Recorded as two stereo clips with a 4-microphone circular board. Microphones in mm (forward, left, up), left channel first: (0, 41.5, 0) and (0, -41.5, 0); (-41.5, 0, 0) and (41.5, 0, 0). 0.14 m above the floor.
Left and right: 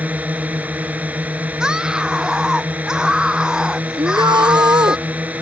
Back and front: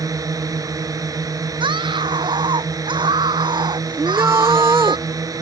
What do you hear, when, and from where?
0.0 s a drone: 25° right
1.6 s a scream: 10° right
4.0 s a shout: 60° right